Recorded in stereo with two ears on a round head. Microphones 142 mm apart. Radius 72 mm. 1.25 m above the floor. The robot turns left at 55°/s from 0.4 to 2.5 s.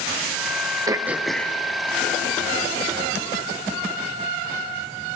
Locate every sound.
0.9 s throat clearing: 25° right (ahead or behind), 0.6 m; by 3.2 s 65° left (ahead or behind), 0.6 m